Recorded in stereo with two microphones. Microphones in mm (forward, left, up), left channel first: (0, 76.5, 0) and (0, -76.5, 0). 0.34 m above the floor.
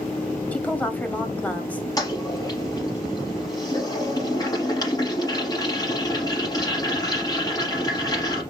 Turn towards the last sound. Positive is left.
turn(degrees=25)  # may be behind; listen again after turning